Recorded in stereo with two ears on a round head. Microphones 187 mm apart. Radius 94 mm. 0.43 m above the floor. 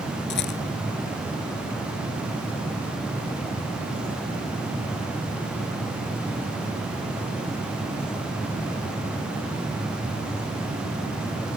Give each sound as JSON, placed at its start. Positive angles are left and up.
{"t": 0.3, "sound": "a rattle", "side_deg": 50}